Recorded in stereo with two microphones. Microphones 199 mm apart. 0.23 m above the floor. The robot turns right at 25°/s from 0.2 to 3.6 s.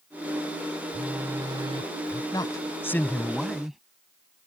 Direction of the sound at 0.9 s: Straight behind.